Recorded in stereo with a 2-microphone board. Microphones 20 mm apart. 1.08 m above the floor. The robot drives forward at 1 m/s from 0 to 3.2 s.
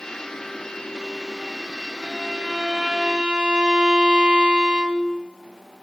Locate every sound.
2.0 s a violin: 30° right (ahead or behind), 3 m; by 5.2 s 45° right (ahead or behind), 2.5 m